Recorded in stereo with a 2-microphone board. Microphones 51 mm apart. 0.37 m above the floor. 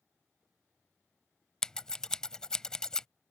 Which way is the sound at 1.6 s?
15° left (ahead or behind).